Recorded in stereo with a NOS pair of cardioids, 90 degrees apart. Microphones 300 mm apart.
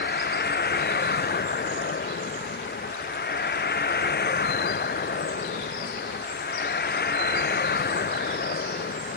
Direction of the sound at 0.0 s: 35° left.